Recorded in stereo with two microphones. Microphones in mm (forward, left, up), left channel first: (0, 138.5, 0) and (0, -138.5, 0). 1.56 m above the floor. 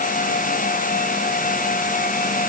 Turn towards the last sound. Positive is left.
No sound to turn to.